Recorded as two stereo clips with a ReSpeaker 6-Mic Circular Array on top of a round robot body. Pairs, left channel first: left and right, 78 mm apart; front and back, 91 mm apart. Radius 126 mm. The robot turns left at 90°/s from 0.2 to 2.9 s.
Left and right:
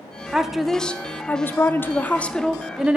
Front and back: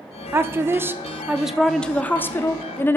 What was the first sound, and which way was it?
A woman speaking, 155° right.